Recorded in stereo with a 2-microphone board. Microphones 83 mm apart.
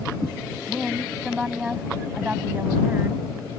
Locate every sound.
0.7 s a woman speaking: centre (ahead or behind); by 3.2 s 25° right (ahead or behind)